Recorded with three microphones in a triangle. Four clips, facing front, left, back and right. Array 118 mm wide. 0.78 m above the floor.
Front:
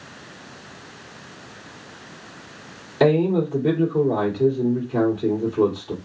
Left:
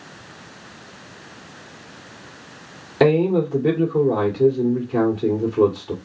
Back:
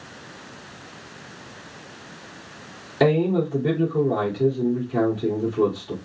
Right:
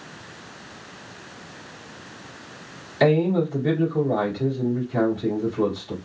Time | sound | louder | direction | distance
3.0 | a man speaking | left 3 dB, front 2 dB | 90° left | 2.5 m